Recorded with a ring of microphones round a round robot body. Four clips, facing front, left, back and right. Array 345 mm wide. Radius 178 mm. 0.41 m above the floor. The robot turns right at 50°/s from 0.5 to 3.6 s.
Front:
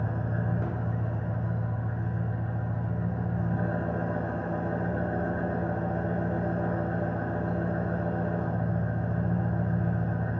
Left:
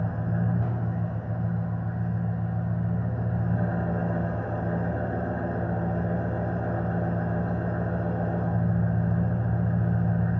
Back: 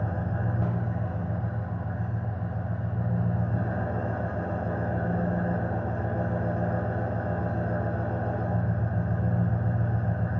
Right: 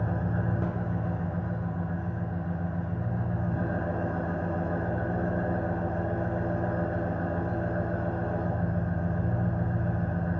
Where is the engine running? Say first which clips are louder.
Left 1 dB, back 1 dB; 85° right, 1.0 m; by 10.4 s 70° left, 1.0 m.